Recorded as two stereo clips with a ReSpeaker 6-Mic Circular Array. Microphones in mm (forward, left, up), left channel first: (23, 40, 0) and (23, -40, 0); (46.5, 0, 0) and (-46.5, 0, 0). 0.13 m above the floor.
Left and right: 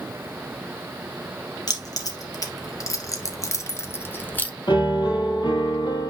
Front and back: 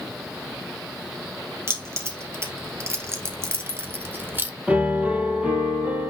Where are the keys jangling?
125° left, 3 m; by 4.5 s 140° left, 1.2 m.